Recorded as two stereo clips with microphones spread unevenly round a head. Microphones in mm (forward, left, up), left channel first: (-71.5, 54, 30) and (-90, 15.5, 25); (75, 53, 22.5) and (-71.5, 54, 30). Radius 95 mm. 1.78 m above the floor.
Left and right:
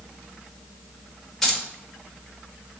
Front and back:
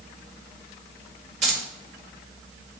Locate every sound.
1.4 s keys jangling: 145° left, 2 m